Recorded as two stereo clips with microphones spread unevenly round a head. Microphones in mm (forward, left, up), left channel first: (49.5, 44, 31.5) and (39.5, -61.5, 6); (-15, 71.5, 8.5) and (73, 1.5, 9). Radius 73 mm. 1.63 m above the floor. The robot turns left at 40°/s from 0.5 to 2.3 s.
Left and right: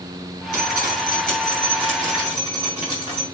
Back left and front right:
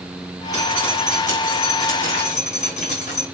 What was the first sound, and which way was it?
Dripping, 105° right.